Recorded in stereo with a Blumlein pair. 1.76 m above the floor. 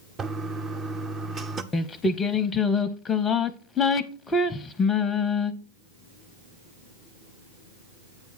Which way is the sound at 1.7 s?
15° left.